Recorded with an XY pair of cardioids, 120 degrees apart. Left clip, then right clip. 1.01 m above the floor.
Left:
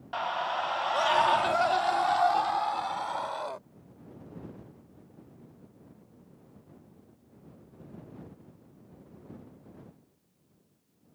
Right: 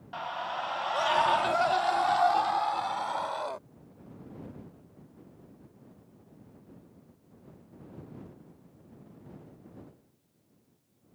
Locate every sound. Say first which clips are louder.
0.1 s a scream: left 4 dB; 35° left; by 3.6 s 5° right